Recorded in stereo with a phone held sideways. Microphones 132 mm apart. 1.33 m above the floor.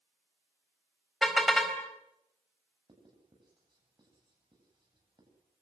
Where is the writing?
35° right (ahead or behind), 9 m.